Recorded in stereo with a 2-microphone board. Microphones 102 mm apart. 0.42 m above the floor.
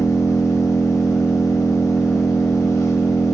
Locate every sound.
0.0 s an engine running: 30° left (ahead or behind), 0.7 m